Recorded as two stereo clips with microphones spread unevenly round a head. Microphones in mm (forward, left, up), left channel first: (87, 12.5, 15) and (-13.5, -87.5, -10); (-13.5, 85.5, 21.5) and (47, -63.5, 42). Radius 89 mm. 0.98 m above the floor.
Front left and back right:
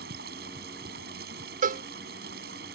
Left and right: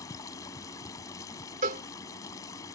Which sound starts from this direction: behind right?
A cowbell, at 1.6 s.